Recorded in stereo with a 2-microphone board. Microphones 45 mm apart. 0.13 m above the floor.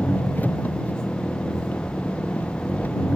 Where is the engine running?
40° left (ahead or behind).